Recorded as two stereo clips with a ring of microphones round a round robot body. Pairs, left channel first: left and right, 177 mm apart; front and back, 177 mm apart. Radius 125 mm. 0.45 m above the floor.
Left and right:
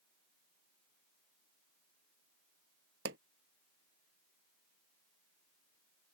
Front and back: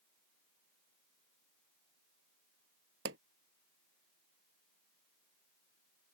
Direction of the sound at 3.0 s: 135° right.